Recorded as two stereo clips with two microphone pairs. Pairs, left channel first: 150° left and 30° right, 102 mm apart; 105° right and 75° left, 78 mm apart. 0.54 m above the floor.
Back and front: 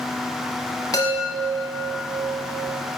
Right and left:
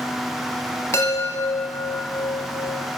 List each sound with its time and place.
0.9 s a chime: 155° right, 1.4 m